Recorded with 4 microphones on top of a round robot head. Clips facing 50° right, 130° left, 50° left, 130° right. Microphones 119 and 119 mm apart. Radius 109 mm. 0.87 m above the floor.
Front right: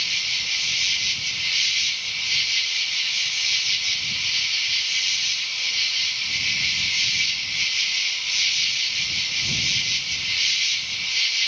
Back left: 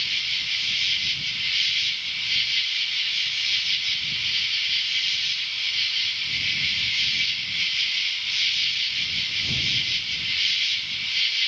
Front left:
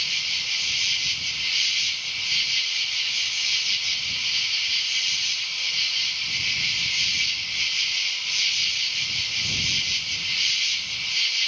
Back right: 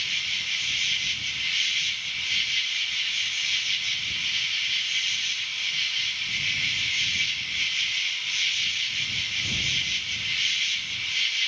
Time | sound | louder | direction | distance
0.0 | an insect | front right 1 dB, even | 5° right | ?